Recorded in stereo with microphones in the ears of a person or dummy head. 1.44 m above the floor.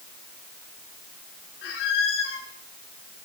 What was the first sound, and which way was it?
A squeak, 65° left (ahead or behind).